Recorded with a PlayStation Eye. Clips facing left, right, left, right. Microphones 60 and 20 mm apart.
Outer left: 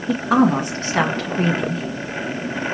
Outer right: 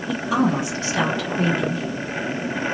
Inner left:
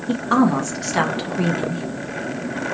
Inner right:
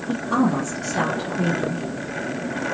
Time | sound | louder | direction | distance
0.1 | a woman speaking | outer left 5 dB, inner left 4 dB | 45° left (ahead or behind) | 0.9 m